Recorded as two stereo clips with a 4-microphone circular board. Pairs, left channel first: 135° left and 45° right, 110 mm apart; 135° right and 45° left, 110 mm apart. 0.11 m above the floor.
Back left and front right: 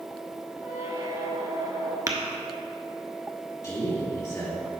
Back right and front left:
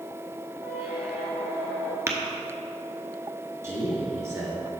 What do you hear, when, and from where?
0.6 s a squeak: 10° right, 1.1 m
2.1 s tapping: 5° right, 0.9 m
3.6 s a man speaking: 95° left, 1.9 m